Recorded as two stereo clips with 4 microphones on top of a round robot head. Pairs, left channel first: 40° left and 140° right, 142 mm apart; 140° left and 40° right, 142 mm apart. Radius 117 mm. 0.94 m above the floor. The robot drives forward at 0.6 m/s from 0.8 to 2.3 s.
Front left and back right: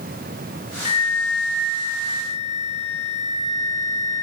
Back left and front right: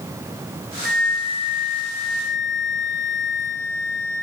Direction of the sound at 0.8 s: 50° left.